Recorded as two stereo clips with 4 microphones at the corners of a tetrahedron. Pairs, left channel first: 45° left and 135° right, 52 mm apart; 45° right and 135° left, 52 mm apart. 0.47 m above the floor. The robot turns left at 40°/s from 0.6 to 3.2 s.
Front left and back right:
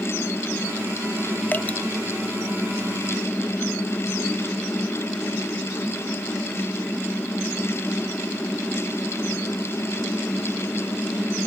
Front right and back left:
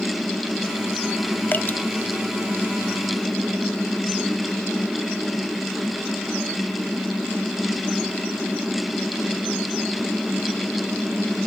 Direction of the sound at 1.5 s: 5° right.